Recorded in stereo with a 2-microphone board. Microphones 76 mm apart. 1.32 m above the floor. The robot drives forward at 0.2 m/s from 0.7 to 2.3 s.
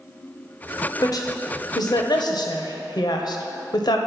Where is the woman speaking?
55° left (ahead or behind), 0.8 m; by 4.0 s 65° left (ahead or behind), 0.7 m.